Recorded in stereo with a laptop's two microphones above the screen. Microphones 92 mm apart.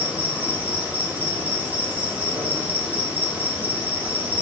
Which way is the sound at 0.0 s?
15° right (ahead or behind).